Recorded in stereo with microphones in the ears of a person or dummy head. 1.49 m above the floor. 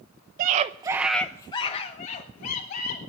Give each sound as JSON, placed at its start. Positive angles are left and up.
{"t": 0.4, "sound": "a scream", "side_deg": -50, "distance_m": 1.0}